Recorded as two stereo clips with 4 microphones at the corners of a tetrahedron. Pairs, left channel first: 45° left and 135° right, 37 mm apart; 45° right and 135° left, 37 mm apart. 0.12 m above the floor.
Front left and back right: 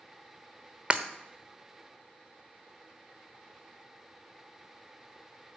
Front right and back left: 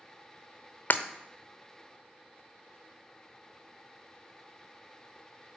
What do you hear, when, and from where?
0.9 s breaking glass: 70° right, 0.7 m